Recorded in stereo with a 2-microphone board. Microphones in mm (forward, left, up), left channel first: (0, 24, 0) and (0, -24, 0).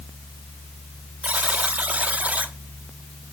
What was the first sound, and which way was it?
A buzzer, 30° right (ahead or behind).